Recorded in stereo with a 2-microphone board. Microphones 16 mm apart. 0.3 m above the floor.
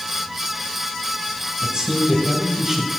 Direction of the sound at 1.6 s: 40° right (ahead or behind).